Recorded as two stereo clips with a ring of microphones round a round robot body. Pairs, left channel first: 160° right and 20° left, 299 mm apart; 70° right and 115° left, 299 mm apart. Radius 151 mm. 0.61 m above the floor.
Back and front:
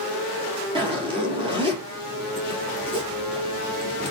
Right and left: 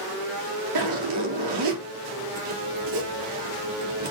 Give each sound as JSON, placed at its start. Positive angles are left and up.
{"t": 0.8, "sound": "a zipper", "azimuth_deg": 95, "distance_m": 3.5}